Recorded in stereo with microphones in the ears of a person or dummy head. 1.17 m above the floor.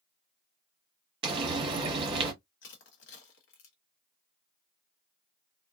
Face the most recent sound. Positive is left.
turn(degrees=60)  # may be behind; listen again after turning